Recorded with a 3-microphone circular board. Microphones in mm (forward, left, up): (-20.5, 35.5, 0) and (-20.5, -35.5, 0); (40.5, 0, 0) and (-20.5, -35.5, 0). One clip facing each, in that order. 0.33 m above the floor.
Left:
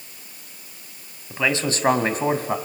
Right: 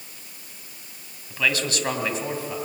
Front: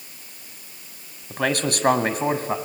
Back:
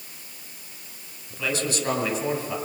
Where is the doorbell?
No doorbell in this recording.